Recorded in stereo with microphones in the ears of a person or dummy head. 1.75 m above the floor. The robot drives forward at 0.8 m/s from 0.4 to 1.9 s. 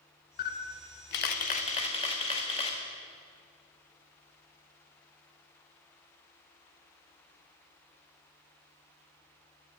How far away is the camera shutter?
About 0.7 m.